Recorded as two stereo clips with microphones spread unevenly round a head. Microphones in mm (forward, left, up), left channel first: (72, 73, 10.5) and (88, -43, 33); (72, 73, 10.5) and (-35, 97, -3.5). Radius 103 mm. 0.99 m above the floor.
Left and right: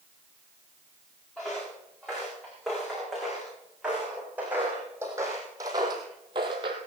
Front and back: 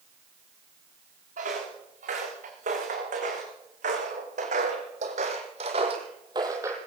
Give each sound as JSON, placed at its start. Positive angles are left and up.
{"t": 1.4, "sound": "footsteps", "azimuth_deg": -175, "distance_m": 5.0}